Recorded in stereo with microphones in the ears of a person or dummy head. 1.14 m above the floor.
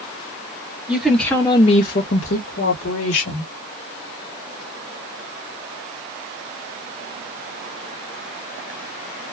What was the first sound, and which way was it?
A woman speaking, 5° right (ahead or behind).